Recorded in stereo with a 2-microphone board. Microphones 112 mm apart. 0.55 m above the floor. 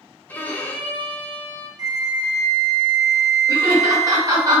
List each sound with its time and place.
0.3 s a violin: 15° left (ahead or behind), 0.5 m
1.8 s a flute: 35° right (ahead or behind), 0.5 m
3.5 s laughter: 35° right (ahead or behind), 1.8 m